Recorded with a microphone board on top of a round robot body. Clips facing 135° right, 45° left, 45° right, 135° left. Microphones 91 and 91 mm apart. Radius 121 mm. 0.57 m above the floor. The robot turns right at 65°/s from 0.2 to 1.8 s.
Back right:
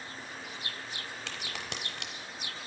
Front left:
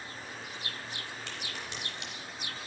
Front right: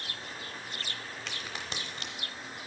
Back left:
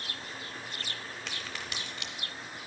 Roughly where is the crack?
Behind right.